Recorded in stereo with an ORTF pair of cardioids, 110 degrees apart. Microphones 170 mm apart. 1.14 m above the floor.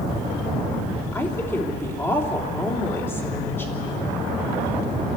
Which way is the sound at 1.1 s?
15° left.